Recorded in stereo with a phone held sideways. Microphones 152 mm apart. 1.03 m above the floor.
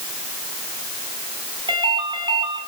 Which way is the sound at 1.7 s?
30° right (ahead or behind).